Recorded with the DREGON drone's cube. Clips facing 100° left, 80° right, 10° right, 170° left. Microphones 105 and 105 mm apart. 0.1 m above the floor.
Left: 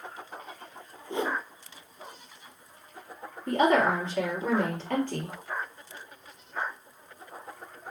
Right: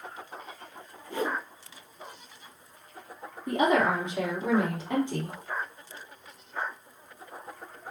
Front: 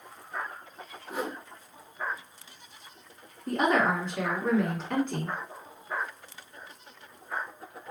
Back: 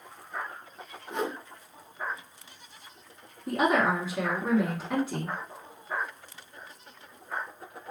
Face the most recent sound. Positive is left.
turn(degrees=-120)